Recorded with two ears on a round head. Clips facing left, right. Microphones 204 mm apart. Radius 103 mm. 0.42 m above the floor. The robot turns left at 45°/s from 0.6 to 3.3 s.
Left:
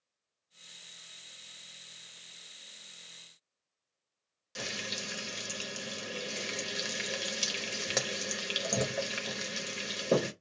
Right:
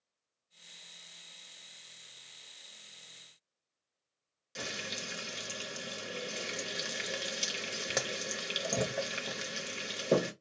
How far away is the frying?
About 0.6 m.